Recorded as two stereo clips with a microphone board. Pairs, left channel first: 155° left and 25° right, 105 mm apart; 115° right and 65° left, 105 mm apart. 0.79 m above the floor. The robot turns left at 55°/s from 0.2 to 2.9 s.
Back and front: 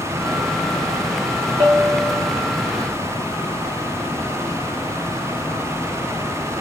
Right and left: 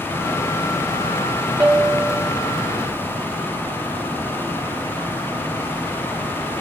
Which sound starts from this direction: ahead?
A bell, at 1.6 s.